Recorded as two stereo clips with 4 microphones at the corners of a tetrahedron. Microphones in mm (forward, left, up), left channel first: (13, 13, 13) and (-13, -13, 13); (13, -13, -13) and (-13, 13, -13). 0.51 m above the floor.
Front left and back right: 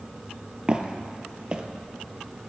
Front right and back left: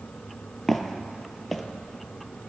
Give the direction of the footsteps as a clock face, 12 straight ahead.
4 o'clock.